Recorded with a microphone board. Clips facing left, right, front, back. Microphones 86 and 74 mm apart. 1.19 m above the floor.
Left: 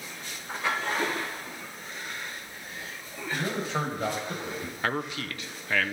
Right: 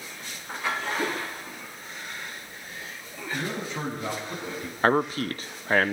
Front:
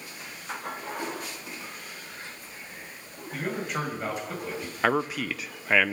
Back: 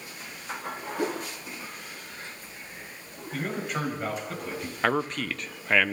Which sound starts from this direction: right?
A man speaking, at 4.8 s.